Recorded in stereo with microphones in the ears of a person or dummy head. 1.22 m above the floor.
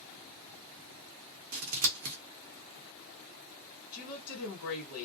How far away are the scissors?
About 0.7 m.